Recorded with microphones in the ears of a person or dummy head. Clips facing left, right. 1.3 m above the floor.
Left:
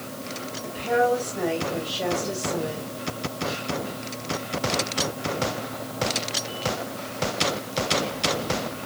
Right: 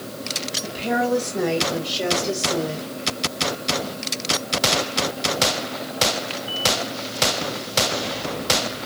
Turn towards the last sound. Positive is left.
turn(degrees=-65)  # may be behind; listen again after turning